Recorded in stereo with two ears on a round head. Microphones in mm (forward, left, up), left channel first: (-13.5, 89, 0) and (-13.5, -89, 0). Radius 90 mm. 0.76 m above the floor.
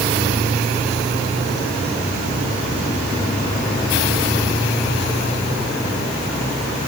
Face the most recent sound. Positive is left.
No sound to turn to.